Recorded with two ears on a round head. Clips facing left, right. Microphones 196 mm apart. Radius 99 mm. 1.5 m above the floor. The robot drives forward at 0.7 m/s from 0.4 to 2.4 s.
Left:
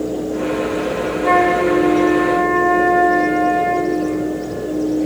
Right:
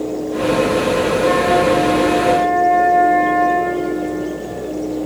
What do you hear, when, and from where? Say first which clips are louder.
1.2 s a flute: left 2 dB; 75° left (ahead or behind), 4 m; by 4.0 s 70° left (ahead or behind), 4 m